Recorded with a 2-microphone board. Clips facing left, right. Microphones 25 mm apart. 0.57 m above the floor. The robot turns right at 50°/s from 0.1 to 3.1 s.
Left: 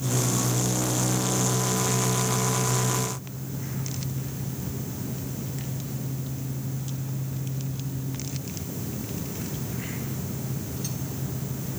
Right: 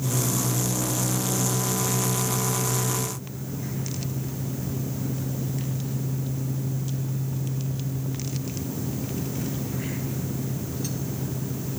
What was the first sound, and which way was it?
Only background noise.